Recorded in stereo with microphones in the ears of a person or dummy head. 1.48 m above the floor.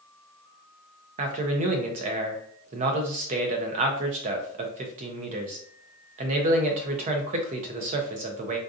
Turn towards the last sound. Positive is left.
turn(degrees=-45)  # may be behind; listen again after turning